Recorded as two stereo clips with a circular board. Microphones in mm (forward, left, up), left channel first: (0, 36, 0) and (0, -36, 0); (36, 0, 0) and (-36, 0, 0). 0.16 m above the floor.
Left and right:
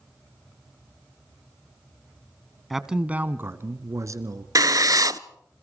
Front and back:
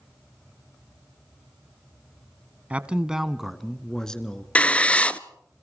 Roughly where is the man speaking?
Behind.